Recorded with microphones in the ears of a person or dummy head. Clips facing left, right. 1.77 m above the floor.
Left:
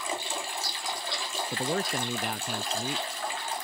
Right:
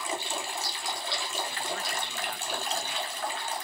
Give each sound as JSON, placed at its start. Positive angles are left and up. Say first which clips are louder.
{"t": 1.5, "sound": "a man speaking", "louder": "left 6 dB", "side_deg": 40}